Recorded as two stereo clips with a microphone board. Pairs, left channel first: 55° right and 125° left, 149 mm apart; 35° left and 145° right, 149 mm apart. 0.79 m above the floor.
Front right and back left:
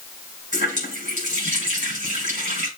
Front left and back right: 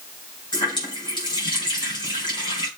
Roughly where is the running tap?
Left.